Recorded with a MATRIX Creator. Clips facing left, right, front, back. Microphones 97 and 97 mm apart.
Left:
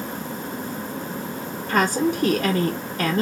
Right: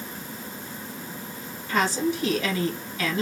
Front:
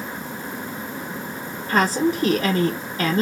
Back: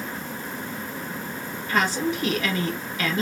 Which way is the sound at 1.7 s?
50° left.